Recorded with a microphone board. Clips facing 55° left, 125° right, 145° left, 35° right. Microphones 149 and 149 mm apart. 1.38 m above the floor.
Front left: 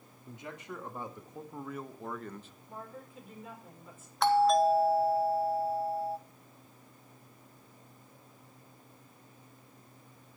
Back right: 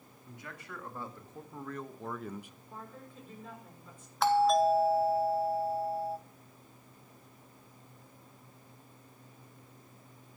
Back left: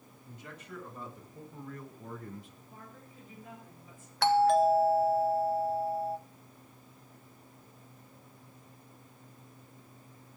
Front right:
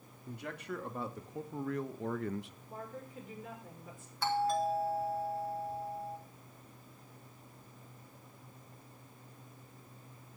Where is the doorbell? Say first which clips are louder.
Front left 1 dB, back left 8 dB; 145° left, 1.0 m.